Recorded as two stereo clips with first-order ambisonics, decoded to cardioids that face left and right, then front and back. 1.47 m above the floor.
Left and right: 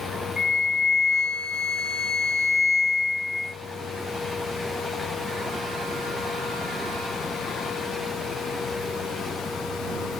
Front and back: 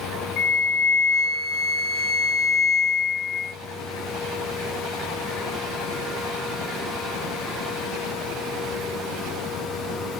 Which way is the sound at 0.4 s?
5° left.